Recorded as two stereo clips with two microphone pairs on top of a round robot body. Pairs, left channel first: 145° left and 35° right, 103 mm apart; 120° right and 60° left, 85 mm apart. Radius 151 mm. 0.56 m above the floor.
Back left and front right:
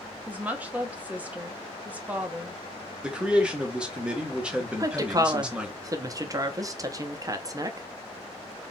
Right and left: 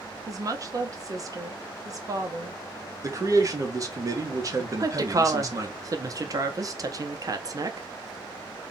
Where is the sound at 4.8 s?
20° left, 0.8 m.